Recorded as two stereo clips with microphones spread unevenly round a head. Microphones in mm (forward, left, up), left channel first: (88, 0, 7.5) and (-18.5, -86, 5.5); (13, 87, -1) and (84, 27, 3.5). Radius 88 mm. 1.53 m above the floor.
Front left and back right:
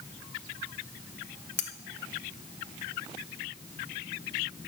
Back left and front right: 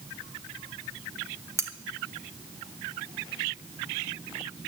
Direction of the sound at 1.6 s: 15° left.